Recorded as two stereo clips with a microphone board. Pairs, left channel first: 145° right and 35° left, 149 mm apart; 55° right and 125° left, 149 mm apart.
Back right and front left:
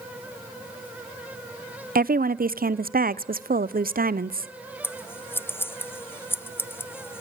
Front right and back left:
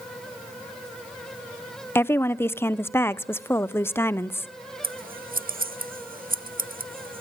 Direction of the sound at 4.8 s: 140° left.